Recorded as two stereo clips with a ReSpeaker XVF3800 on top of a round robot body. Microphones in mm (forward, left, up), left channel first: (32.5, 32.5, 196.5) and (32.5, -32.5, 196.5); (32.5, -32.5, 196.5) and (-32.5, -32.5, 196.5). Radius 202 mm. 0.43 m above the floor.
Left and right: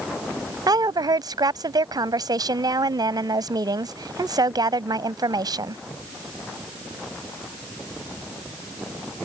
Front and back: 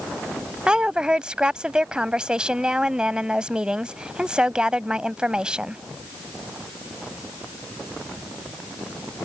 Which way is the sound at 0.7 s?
100° right.